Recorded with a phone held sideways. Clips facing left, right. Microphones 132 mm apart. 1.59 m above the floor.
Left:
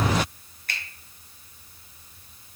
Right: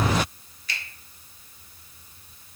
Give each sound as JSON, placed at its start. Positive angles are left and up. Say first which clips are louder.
{"t": 0.7, "sound": "a finger snap", "louder": "even", "side_deg": 50, "distance_m": 0.8}